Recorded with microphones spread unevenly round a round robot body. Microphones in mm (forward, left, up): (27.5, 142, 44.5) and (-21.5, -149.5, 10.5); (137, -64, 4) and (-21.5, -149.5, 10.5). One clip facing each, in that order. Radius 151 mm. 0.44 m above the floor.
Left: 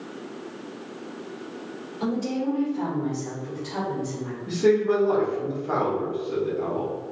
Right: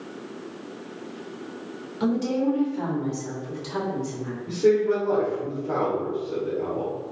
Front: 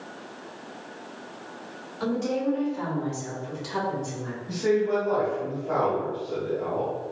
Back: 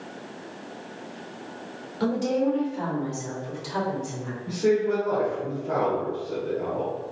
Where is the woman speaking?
120° right, 1.5 m; by 4.4 s 65° right, 1.9 m.